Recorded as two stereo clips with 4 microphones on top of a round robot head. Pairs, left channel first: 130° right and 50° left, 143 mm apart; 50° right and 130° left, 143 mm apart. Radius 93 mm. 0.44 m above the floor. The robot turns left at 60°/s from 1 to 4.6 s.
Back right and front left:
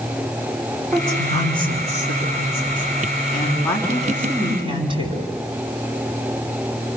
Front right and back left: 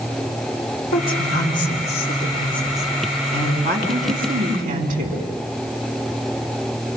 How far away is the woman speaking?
About 5.5 m.